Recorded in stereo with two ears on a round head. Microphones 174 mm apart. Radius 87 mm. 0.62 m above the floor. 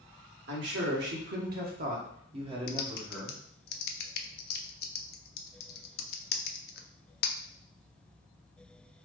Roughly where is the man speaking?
Right.